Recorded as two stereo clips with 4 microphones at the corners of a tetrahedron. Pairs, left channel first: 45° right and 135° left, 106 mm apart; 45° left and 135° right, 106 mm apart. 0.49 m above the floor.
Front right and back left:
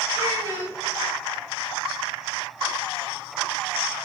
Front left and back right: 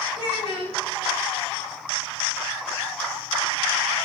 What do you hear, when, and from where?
0.1 s a child speaking: 75° left, 3 m